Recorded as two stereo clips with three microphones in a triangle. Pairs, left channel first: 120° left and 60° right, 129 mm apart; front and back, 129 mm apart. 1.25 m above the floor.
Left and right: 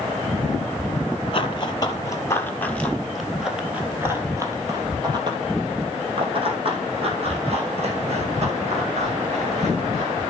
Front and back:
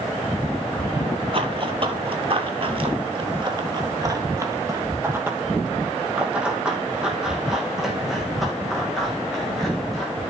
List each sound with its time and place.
1.3 s running footsteps: 155° left, 1.9 m; by 10.1 s 90° right, 5.5 m